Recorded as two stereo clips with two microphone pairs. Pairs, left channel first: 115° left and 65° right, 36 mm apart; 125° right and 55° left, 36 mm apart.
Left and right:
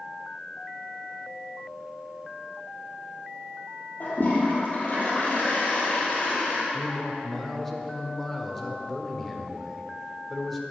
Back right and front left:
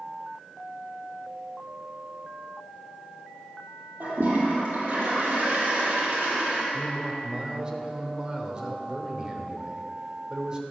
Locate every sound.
4.0 s a toilet flushing: 75° left, 3 m
6.7 s a man speaking: 35° left, 1.0 m